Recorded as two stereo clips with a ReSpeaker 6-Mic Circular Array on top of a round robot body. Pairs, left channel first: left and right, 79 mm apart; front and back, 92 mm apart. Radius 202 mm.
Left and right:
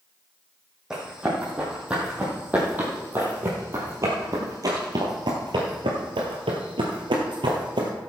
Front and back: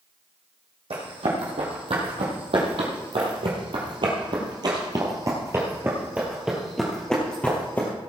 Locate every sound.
0.9 s running footsteps: 175° right, 3 m; by 7.9 s 70° right, 1.8 m